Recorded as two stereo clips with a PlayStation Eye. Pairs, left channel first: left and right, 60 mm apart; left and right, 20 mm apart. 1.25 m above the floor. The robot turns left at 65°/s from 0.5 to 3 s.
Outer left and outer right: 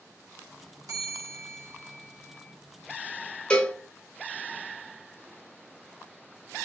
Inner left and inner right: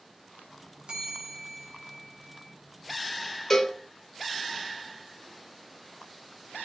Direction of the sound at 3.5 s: 20° left (ahead or behind).